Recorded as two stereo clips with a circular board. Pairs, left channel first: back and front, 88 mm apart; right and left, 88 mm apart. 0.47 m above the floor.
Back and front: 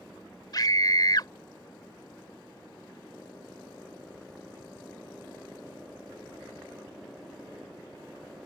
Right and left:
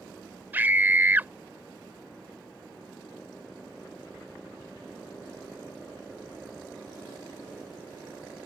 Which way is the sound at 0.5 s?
155° left.